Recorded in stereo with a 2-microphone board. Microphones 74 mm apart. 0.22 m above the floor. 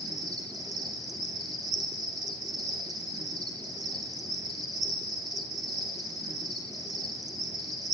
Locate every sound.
0.0 s an insect: 55° right (ahead or behind), 1.4 m